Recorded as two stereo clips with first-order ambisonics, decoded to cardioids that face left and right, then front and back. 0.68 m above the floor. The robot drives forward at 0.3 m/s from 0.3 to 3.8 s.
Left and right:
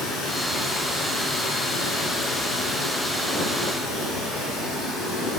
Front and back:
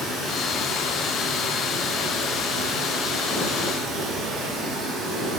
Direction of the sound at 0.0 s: 55° left.